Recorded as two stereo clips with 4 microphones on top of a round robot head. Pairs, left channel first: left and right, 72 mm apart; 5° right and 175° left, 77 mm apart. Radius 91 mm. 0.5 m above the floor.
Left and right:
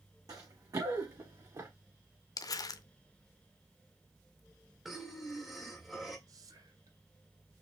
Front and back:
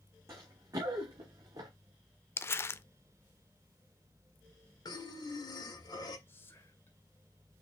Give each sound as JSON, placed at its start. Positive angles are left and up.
{"t": 0.3, "sound": "running footsteps", "azimuth_deg": -125, "distance_m": 2.5}
{"t": 2.4, "sound": "crumpling", "azimuth_deg": 55, "distance_m": 0.5}
{"t": 4.8, "sound": "breathing", "azimuth_deg": -5, "distance_m": 1.9}
{"t": 6.3, "sound": "whispering", "azimuth_deg": -65, "distance_m": 1.7}